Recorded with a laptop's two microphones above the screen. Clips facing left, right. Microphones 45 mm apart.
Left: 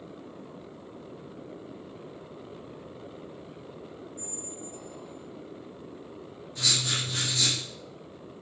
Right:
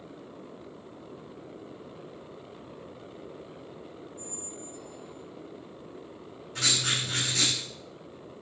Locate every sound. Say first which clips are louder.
4.2 s a squeak: left 1 dB; 75° left (ahead or behind), 3 m
6.5 s writing: right 1 dB; 70° right (ahead or behind), 4.5 m